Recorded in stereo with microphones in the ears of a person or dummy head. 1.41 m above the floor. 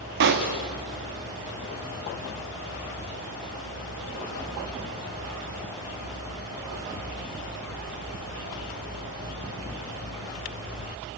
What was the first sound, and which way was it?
A pop, 55° right (ahead or behind).